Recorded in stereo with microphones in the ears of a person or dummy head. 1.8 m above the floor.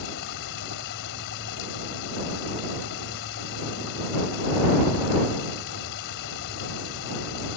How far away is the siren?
I don't hear a siren.